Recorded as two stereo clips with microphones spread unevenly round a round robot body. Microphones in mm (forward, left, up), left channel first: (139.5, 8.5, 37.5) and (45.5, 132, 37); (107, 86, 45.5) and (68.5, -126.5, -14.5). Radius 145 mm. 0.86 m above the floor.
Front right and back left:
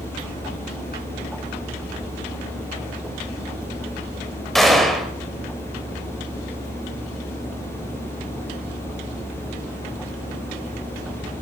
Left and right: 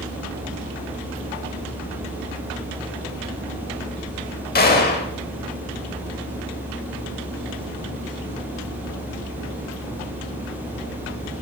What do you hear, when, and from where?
4.5 s a gunshot: 35° left, 2 m